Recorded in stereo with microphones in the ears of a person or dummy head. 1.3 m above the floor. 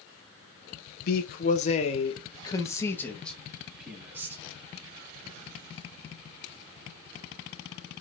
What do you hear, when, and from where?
1.1 s a man speaking: 50° left (ahead or behind), 1.4 m; by 4.4 s 10° right (ahead or behind), 1.9 m